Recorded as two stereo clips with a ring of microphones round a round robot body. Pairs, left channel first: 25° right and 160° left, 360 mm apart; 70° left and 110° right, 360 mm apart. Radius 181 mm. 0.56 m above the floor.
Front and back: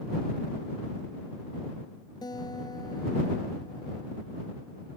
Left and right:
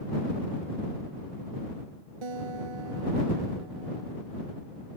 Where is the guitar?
100° right.